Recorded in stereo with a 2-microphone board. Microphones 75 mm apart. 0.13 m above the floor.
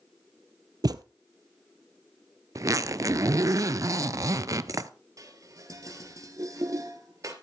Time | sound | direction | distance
0.8 | a thud | 65° right (ahead or behind) | 0.7 m
2.5 | a zipper | 50° right (ahead or behind) | 0.5 m
5.2 | dishes clattering | 50° right (ahead or behind) | 1.9 m